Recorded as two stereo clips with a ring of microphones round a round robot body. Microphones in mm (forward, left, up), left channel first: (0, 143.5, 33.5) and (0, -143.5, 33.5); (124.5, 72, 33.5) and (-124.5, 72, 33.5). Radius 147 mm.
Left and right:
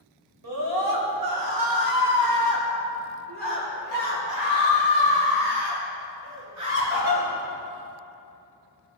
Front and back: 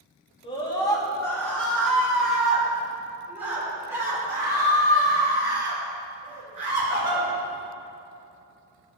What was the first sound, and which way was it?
A scream, 70° right.